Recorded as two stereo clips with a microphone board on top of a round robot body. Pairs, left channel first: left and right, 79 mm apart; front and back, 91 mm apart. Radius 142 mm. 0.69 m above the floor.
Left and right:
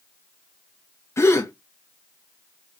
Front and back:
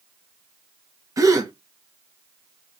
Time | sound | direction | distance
1.2 | a gasp | 135° left | 1.2 m